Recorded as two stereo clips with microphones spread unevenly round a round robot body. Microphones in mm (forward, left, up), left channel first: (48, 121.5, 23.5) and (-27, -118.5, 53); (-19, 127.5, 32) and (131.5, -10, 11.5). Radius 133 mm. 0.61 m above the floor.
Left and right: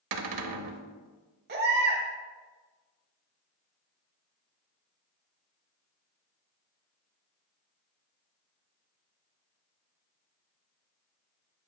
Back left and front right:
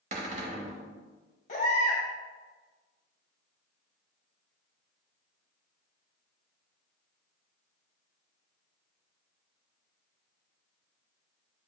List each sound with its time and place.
0.1 s a cupboard door: 110° right, 0.8 m
1.5 s a baby crying: 160° right, 1.5 m